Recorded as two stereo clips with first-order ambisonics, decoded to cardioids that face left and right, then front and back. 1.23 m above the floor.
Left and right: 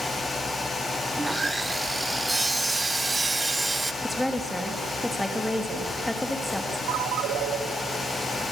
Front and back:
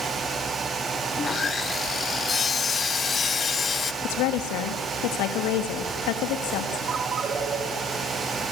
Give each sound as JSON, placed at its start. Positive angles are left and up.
{"t": 1.2, "sound": "sawing", "azimuth_deg": -25, "distance_m": 0.7}
{"t": 4.0, "sound": "a woman speaking", "azimuth_deg": 0, "distance_m": 2.5}
{"t": 6.9, "sound": "a ringtone", "azimuth_deg": -120, "distance_m": 1.9}